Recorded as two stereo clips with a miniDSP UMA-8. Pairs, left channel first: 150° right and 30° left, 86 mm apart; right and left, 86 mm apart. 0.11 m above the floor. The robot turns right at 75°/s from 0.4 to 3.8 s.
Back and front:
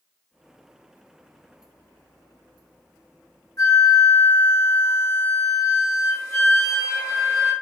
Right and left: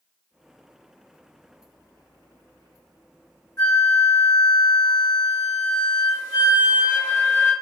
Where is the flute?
135° right, 1.2 m; by 7.5 s 115° right, 1.2 m.